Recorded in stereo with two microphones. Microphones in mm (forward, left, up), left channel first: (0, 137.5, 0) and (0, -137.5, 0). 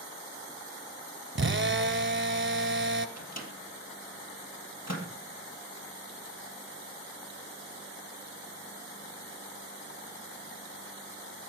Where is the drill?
45° right (ahead or behind), 0.8 m.